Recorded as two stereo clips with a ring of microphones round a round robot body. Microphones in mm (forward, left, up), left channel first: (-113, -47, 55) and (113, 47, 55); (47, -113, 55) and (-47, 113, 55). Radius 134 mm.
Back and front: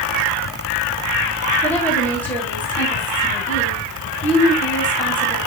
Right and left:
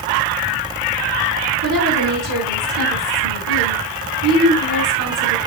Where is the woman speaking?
120° left, 4 m.